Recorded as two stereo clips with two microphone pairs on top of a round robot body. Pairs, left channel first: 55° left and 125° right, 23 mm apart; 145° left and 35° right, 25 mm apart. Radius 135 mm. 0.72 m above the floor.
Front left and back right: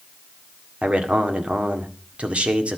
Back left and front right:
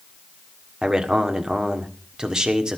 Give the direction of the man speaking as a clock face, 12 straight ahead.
3 o'clock.